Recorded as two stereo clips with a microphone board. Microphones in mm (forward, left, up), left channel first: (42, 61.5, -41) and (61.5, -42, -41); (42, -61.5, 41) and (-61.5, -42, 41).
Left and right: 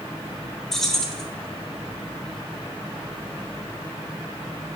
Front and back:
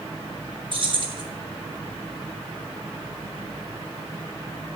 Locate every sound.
0.7 s keys jangling: 175° right, 1.0 m